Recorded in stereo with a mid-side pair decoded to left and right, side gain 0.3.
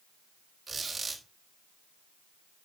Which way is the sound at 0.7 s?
65° right.